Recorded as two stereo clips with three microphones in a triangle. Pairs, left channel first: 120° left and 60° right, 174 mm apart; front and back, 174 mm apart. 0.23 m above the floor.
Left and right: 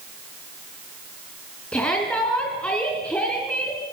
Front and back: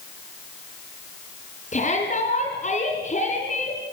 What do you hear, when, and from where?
1.7 s a shout: 40° left, 3 m